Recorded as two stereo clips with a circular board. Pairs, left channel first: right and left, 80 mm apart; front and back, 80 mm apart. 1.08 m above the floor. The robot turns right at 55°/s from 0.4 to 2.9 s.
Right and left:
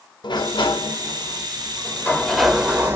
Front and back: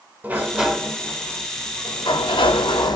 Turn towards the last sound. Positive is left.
turn(degrees=25)